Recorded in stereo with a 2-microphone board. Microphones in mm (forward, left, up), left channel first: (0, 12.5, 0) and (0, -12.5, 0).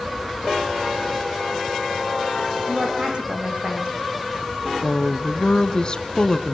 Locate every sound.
2.7 s a woman speaking: 45° right (ahead or behind), 9.5 m
4.8 s a woman speaking: 35° left (ahead or behind), 1.4 m